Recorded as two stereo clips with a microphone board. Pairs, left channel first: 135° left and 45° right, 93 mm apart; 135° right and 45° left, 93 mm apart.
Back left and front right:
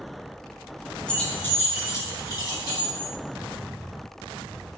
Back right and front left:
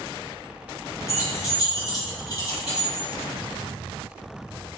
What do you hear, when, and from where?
1.1 s keys jangling: 150° right, 0.8 m; by 3.1 s 175° left, 1.7 m